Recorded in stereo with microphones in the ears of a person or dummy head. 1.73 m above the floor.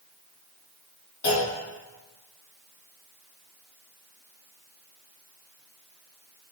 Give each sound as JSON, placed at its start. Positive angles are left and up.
{"t": 1.2, "sound": "a clunk", "side_deg": 60, "distance_m": 2.5}